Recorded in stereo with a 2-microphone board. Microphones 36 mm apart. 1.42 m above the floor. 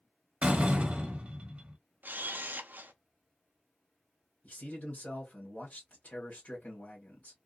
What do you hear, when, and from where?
0.4 s a door slam: 35° right (ahead or behind), 1.1 m
2.0 s a camera shutter: 65° right (ahead or behind), 0.5 m
4.4 s a man speaking: 50° left (ahead or behind), 1.3 m